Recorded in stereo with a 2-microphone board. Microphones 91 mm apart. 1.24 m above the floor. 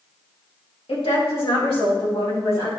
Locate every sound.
0.9 s a woman speaking: 75° left (ahead or behind), 1.9 m; by 2.7 s 80° left, 3 m